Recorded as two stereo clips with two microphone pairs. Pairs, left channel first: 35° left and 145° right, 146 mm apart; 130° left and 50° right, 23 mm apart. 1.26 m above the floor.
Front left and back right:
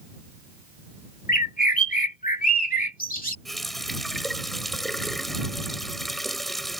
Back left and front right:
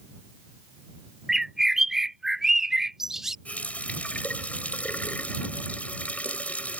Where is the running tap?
125° left.